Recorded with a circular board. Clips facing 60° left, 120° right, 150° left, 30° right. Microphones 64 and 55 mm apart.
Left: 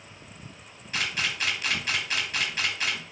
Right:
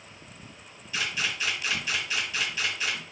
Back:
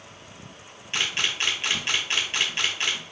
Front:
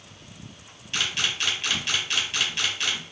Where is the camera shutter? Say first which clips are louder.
Left 1 dB, back 1 dB; 95° left, 4 m.